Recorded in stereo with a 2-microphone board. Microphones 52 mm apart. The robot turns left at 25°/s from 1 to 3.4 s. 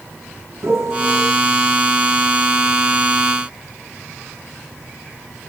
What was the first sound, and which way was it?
A piano, 60° right (ahead or behind).